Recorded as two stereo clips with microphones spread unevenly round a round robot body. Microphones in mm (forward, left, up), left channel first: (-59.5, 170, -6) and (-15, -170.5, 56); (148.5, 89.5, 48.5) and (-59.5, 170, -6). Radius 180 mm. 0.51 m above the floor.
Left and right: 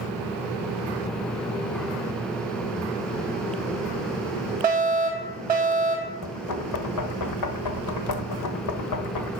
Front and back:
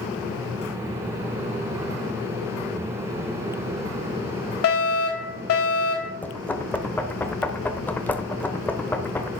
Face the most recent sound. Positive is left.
turn(degrees=65)